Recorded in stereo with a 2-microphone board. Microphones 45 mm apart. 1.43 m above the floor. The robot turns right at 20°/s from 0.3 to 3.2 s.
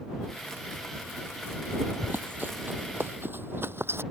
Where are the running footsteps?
45° right (ahead or behind); by 4.0 s 60° right (ahead or behind).